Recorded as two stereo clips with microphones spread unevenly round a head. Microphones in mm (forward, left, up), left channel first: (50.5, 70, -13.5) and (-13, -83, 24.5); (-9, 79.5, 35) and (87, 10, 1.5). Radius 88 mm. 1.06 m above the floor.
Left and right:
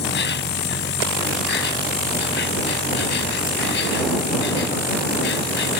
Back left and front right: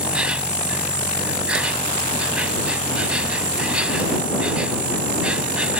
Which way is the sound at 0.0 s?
45° left.